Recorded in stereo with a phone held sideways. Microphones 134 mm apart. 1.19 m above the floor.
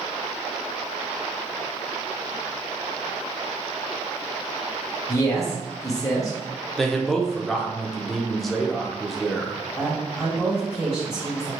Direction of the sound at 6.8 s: Centre (ahead or behind).